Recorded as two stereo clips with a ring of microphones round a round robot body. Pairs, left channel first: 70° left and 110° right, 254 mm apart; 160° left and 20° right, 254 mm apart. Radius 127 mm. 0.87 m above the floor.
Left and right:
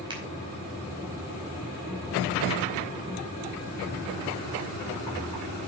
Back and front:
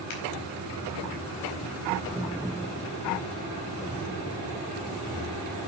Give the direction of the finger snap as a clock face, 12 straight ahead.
6 o'clock.